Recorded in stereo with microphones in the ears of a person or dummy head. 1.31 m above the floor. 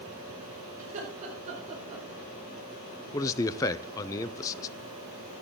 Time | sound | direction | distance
0.8 | laughter | 40° right (ahead or behind) | 5.5 m
3.1 | a man speaking | 15° left (ahead or behind) | 0.5 m